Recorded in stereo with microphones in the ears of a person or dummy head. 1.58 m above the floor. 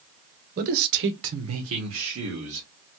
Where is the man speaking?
45° right (ahead or behind), 0.7 m; by 2.7 s 80° right, 1.4 m.